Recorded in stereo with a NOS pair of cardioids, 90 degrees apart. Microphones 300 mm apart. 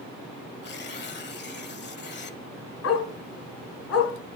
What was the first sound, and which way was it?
Tearing paper, 40° left.